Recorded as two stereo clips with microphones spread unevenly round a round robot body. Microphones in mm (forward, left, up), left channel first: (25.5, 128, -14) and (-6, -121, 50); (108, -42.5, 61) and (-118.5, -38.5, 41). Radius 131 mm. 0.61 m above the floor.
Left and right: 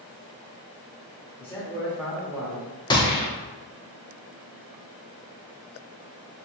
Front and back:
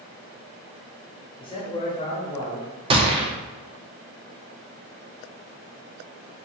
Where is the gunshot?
130° left, 0.6 m.